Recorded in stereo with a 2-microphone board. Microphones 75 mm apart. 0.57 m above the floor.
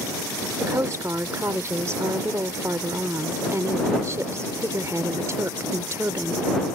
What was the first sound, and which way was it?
A woman speaking, 40° right (ahead or behind).